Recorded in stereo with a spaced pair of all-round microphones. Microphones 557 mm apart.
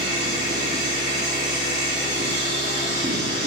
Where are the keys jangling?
I don't hear keys jangling.